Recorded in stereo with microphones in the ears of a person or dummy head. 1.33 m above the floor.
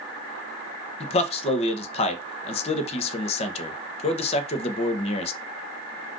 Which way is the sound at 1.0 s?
45° left (ahead or behind).